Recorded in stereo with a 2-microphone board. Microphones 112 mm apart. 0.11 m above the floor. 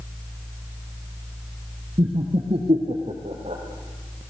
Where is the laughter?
55° right (ahead or behind), 2.5 m; by 3.6 s 65° right (ahead or behind), 4 m.